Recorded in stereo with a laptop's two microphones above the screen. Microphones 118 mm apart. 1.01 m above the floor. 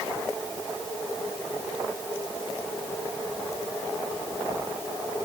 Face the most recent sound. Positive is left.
No sound to turn to.